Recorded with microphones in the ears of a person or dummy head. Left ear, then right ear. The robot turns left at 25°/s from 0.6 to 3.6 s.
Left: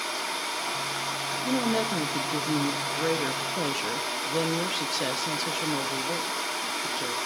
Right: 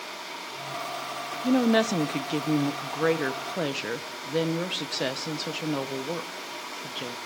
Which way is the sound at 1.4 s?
100° right.